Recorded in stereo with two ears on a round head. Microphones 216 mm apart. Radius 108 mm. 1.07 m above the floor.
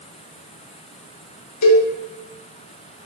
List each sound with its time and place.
1.6 s a cowbell: 75° left (ahead or behind), 0.7 m